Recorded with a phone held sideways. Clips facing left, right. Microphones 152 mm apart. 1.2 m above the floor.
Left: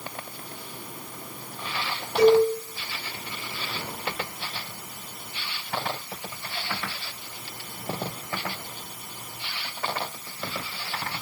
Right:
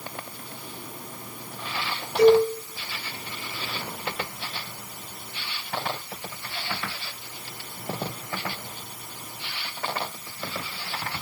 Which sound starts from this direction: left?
A cowbell, at 2.2 s.